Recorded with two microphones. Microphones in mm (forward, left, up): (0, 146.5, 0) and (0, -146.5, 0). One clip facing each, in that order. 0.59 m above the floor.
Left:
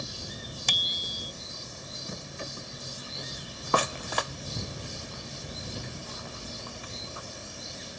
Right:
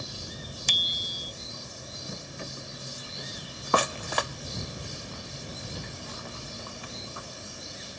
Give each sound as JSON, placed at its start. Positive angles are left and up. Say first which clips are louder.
{"t": 0.7, "sound": "a bicycle bell", "louder": "even", "side_deg": 70}